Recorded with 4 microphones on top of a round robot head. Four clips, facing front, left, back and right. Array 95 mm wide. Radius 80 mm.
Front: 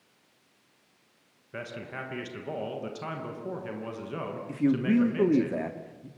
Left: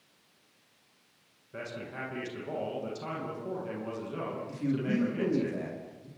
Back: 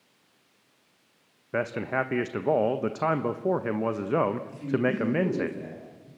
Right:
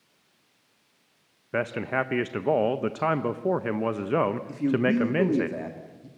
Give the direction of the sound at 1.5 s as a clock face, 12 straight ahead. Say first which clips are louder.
Right 13 dB, back 11 dB; 4 o'clock.